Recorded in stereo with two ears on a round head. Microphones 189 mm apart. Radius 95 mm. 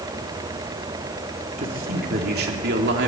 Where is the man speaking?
40° right (ahead or behind), 3 m; by 3.1 s 55° right (ahead or behind), 3 m.